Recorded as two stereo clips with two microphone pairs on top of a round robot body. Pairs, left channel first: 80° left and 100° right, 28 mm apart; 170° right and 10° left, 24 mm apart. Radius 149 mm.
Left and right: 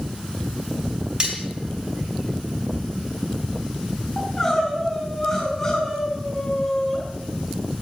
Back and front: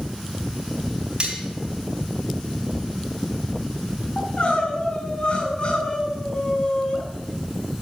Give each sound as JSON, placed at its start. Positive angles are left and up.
{"t": 1.2, "sound": "cutlery clinking", "azimuth_deg": -40, "distance_m": 3.0}
{"t": 4.2, "sound": "crying", "azimuth_deg": 155, "distance_m": 3.5}